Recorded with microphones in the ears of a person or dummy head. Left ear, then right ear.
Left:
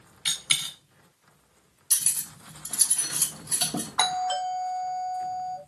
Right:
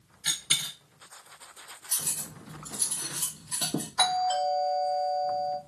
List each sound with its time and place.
0.2 s a dropped coin: 50° left (ahead or behind), 1.8 m
1.9 s cutlery clinking: 60° left (ahead or behind), 1.1 m
4.0 s a doorbell: 20° left (ahead or behind), 1.8 m